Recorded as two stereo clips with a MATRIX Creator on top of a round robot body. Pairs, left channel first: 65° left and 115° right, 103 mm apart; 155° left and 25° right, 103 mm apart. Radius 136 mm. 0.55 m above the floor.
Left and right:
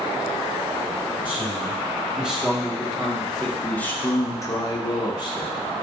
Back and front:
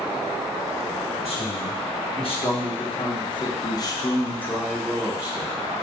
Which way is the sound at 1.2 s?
170° left.